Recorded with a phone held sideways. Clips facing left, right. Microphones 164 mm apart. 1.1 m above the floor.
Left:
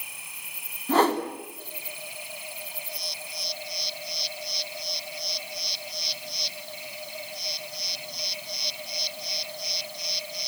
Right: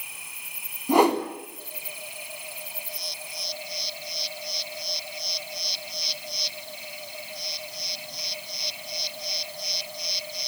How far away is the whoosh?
About 3 m.